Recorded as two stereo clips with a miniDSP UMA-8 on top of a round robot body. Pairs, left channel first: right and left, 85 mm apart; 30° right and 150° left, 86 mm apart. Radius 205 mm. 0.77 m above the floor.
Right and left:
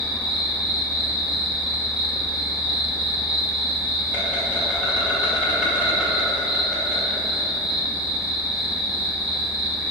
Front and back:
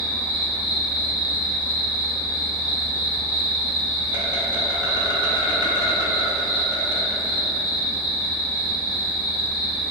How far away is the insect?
About 1.3 m.